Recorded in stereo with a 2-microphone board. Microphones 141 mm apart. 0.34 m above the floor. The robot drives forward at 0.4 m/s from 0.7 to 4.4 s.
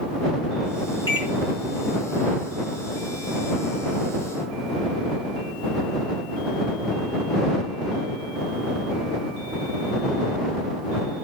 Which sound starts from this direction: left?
A microwave, at 1.1 s.